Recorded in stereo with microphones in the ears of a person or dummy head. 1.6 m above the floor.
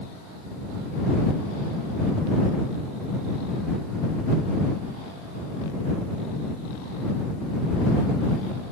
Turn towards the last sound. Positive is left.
No sound to turn to.